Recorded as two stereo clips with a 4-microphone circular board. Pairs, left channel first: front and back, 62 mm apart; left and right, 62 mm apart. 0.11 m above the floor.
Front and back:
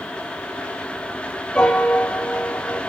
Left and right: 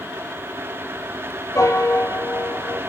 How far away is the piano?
About 2.5 m.